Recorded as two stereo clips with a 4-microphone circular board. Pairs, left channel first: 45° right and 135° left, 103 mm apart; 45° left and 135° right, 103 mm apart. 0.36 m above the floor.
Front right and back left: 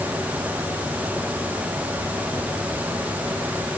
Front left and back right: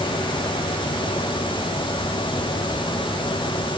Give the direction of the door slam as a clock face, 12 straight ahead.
No door slam in this recording.